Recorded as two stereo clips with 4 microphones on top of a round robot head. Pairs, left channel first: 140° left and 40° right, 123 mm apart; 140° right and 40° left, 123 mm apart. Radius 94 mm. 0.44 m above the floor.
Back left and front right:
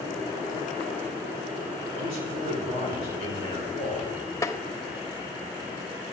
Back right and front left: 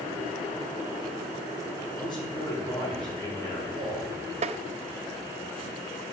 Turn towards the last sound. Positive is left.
turn(degrees=75)